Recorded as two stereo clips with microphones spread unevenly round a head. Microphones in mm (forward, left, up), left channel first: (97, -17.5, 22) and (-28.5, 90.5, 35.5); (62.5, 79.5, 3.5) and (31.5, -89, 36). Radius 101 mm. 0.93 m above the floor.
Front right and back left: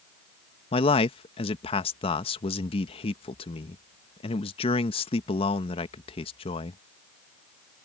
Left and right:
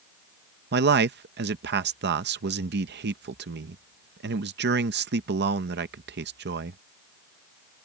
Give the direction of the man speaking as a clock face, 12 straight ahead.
3 o'clock.